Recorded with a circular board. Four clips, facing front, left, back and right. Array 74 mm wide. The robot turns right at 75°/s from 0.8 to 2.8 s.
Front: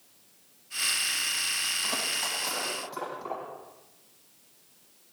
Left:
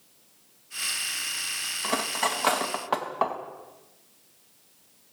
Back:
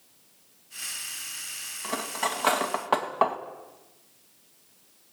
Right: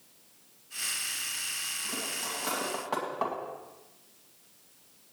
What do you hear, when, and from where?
1.8 s cutlery clinking: 90° left, 2 m; by 3.4 s 160° left, 2 m